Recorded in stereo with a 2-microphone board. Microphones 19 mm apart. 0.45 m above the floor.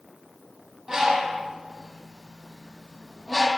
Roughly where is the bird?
Right.